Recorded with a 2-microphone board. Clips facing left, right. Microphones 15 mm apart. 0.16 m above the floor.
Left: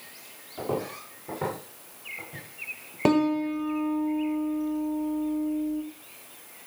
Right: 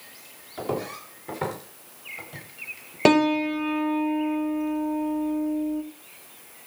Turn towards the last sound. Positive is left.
turn(degrees=-65)  # may be behind; listen again after turning